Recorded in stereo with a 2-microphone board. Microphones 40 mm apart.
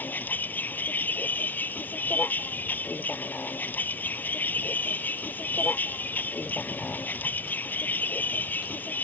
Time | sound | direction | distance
0.0 | a vehicle | 55° left (ahead or behind) | ?